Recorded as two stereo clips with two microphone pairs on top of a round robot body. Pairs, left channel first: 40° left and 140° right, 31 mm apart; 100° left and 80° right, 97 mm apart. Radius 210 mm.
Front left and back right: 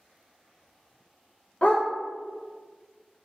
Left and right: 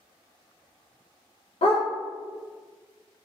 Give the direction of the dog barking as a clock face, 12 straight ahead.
9 o'clock.